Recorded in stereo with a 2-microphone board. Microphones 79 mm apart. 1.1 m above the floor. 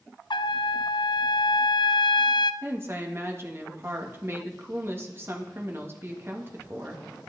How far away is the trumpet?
About 0.5 m.